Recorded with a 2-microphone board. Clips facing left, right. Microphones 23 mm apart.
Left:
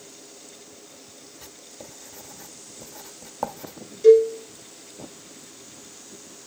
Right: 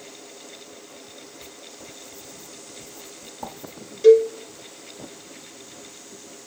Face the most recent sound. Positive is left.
turn(degrees=-25)  # may be behind; listen again after turning